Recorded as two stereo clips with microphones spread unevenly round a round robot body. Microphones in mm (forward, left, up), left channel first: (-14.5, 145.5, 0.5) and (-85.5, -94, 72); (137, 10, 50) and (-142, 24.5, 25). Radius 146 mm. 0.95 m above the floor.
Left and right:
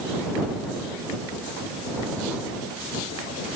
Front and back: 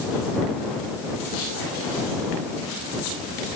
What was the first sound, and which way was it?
Only background noise.